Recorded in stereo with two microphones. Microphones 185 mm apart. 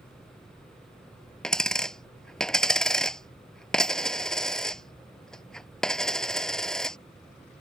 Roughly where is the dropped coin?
Centre.